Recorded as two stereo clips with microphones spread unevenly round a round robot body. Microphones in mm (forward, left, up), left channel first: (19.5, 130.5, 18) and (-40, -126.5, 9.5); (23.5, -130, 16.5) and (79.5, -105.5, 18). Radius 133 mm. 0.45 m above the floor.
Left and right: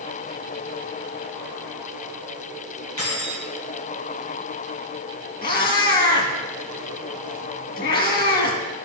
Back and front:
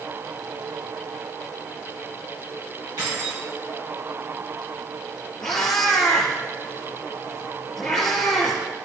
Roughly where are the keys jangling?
Ahead left.